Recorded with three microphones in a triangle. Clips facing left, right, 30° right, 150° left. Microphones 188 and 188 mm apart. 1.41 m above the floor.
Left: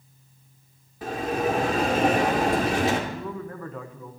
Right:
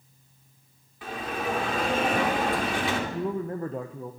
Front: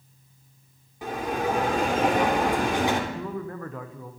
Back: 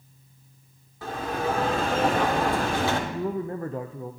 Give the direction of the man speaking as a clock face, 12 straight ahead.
5 o'clock.